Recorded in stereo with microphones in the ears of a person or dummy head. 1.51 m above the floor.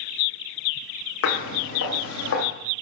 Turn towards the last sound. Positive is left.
turn(degrees=75)  # may be behind; listen again after turning